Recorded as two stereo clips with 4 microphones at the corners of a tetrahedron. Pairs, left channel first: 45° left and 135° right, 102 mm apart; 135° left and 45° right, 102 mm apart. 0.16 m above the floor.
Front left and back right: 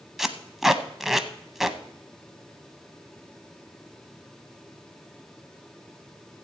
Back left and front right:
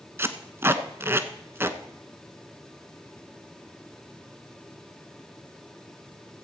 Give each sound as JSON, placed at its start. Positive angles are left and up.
{"t": 0.2, "sound": "tape being pulled", "azimuth_deg": -50, "distance_m": 0.6}